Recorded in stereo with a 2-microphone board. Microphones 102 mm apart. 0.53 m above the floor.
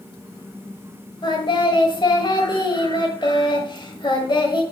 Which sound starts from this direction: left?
Singing, at 1.2 s.